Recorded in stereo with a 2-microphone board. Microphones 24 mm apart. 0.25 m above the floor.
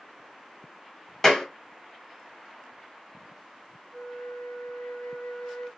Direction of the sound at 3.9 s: 35° left (ahead or behind).